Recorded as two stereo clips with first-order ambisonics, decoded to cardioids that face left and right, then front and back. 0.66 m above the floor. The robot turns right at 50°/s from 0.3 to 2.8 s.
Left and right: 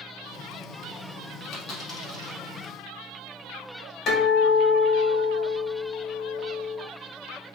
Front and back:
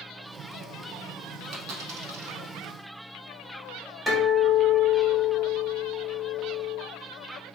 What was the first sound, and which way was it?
A dropped coin, 135° left.